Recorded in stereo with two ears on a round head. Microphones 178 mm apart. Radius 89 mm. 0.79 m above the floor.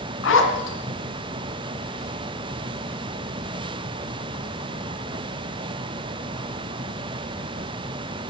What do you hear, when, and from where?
0.2 s a zipper: 70° left (ahead or behind), 3 m